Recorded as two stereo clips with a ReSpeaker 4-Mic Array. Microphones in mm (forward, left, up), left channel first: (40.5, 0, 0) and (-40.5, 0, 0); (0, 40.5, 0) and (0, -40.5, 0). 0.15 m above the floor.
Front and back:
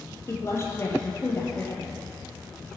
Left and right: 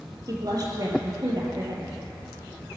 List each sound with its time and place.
0.3 s a woman speaking: 55° right, 4.5 m